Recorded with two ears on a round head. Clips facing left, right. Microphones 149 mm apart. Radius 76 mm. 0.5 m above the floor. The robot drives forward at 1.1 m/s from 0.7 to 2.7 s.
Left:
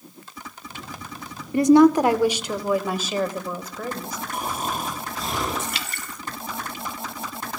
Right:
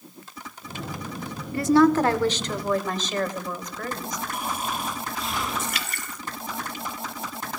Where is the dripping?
25° left (ahead or behind), 1.5 m.